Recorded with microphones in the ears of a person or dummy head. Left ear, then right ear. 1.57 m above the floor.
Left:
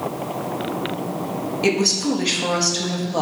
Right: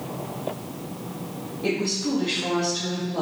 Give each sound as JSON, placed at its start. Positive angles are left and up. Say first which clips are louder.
{"t": 1.6, "sound": "a woman speaking", "louder": "left 6 dB", "side_deg": 70, "distance_m": 0.8}